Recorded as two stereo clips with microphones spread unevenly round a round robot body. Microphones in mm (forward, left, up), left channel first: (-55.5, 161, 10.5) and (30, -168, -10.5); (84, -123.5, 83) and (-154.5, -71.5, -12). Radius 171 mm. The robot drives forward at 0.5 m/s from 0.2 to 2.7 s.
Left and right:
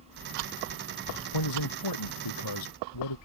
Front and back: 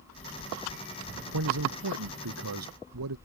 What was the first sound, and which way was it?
A man speaking, 130° left.